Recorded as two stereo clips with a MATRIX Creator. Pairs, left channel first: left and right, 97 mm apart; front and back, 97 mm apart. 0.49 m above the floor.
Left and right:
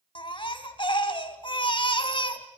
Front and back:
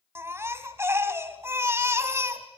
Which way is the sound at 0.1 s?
115° left.